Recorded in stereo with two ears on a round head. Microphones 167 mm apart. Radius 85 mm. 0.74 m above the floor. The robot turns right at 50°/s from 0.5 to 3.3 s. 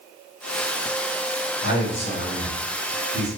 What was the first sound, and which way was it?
A man speaking, 125° left.